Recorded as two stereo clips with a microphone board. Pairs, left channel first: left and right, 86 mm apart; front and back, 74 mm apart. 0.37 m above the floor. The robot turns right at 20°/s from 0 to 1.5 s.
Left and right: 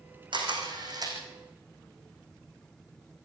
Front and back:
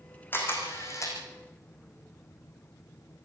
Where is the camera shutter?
65° right, 4.5 m; by 1.2 s 45° right, 4.5 m.